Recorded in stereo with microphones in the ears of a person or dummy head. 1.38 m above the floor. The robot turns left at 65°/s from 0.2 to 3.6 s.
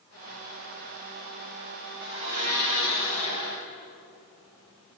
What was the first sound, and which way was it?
A blender, 60° right.